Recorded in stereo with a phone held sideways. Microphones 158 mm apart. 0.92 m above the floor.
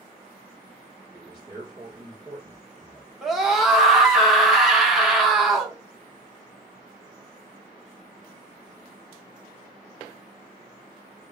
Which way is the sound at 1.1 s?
30° right (ahead or behind).